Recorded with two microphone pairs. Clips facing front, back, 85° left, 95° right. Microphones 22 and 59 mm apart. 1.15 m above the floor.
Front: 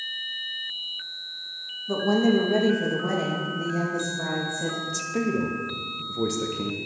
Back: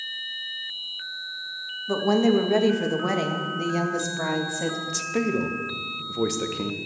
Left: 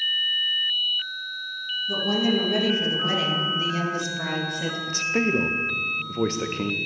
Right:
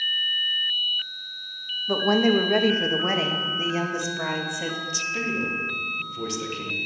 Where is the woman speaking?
120° right, 1.8 m; by 4.8 s 175° right, 2 m.